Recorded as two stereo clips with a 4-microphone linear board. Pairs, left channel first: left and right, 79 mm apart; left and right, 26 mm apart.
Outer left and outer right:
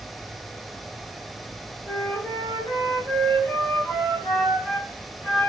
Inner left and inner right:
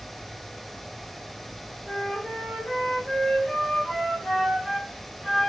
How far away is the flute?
About 1.4 m.